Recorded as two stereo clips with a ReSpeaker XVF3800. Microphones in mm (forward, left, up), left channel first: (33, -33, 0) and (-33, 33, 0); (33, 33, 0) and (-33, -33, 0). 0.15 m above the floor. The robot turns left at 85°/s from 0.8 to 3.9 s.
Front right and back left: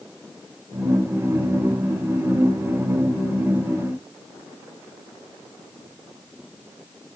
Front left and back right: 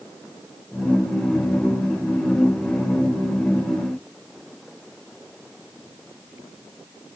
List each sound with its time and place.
Only background noise.